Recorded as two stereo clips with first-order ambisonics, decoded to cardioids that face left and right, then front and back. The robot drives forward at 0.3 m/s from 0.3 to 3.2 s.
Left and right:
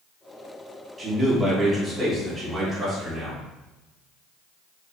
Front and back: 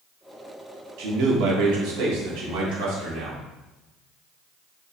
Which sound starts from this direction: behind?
A man speaking, at 1.0 s.